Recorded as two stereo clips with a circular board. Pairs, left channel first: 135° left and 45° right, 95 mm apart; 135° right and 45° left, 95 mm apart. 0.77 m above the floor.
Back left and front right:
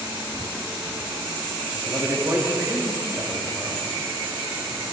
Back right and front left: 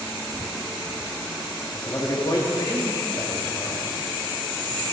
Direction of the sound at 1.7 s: 100° right.